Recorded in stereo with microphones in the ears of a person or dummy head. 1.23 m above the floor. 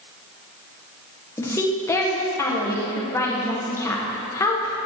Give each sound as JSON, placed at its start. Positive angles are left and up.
{"t": 1.4, "sound": "a woman speaking", "side_deg": 20, "distance_m": 1.1}